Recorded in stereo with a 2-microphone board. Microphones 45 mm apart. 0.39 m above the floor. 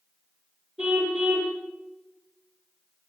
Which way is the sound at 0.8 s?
15° right (ahead or behind).